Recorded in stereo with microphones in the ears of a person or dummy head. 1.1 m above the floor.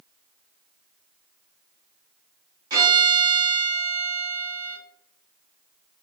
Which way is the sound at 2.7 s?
25° right (ahead or behind).